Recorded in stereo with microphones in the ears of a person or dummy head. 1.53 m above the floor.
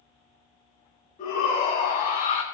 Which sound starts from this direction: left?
A shout, at 1.2 s.